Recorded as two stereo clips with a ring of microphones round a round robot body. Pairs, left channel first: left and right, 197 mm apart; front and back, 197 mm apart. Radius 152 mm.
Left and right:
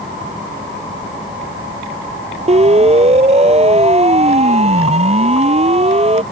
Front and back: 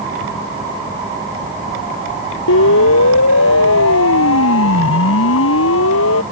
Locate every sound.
2.5 s a siren: 35° right; by 6.2 s 30° right